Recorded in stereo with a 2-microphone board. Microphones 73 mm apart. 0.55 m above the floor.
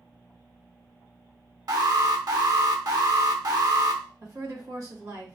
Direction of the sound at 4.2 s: 45° right (ahead or behind).